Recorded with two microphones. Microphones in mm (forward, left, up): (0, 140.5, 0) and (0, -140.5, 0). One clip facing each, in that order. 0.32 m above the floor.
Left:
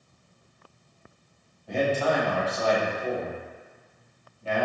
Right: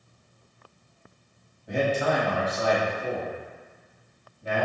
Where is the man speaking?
15° right (ahead or behind), 1.4 m.